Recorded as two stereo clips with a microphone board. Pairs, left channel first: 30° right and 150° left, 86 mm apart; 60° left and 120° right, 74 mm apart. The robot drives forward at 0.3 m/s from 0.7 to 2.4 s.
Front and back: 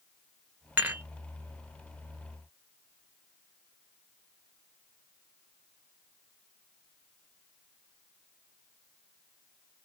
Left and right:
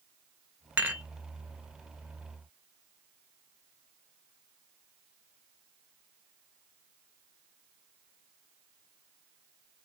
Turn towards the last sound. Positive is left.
turn(degrees=-170)